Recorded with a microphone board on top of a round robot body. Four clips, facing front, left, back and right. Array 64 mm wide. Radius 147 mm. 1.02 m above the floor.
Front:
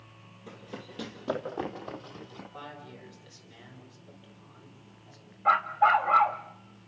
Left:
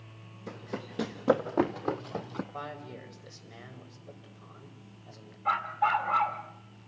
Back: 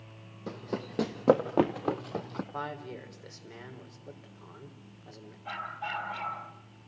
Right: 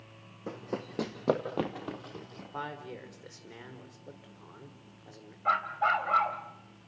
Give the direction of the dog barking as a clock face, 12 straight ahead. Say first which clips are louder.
Even, front 15 dB; 12 o'clock.